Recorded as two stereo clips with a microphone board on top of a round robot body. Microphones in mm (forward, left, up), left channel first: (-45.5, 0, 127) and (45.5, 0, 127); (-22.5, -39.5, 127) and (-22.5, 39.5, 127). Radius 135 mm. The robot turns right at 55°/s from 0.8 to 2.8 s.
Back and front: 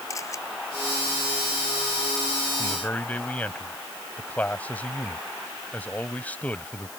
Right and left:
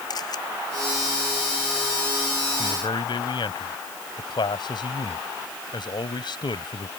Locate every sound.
0.1 s a camera shutter: 125° right
2.6 s a man speaking: 120° right; by 6.9 s 105° right